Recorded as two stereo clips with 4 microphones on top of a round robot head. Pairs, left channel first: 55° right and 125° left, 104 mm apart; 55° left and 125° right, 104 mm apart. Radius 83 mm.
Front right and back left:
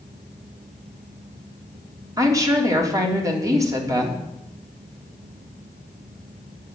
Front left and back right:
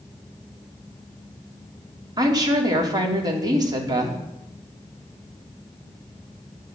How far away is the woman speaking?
About 3 m.